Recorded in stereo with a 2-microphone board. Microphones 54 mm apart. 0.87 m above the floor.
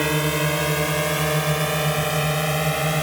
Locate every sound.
0.0 s a drone: centre (ahead or behind)